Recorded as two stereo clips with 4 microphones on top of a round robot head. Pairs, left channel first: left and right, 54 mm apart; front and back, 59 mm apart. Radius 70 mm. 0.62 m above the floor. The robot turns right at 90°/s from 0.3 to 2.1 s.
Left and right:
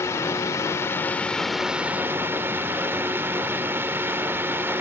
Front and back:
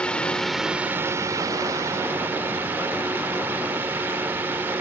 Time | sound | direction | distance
0.0 | a drone | 70° left | ?